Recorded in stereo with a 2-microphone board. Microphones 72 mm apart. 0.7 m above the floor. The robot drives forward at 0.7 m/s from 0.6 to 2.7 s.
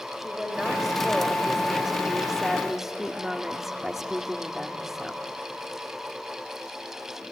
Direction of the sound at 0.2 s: Centre (ahead or behind).